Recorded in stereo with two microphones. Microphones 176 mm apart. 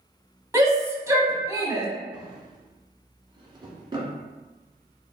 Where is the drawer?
30° right (ahead or behind), 1.4 m.